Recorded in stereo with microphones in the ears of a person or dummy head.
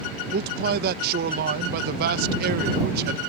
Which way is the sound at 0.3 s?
55° right (ahead or behind).